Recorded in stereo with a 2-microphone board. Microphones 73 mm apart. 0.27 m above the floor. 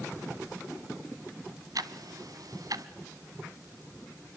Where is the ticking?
60° right (ahead or behind), 1.1 m.